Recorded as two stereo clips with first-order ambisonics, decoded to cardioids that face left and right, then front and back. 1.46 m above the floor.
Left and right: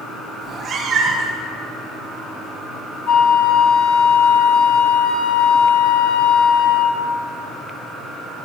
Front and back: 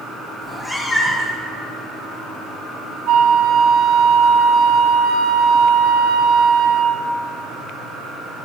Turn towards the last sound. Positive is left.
turn(degrees=130)